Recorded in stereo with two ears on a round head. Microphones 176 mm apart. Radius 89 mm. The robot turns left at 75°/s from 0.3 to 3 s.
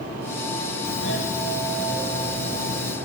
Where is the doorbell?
75° left, 2.5 m; by 3.0 s 85° right, 2.5 m.